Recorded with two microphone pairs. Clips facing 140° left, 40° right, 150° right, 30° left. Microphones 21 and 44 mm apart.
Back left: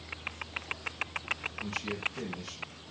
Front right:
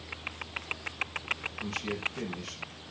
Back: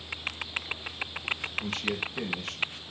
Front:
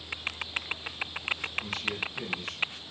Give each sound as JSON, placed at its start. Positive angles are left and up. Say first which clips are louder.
{"t": 1.6, "sound": "a man speaking", "louder": "front right 1 dB, back 2 dB", "azimuth_deg": -110, "distance_m": 4.5}